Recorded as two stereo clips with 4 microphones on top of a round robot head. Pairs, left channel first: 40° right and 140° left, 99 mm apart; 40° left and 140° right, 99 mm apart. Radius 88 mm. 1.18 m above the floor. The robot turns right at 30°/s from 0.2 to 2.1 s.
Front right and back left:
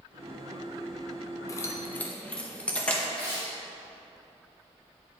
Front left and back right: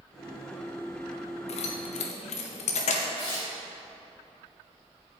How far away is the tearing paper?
About 3 m.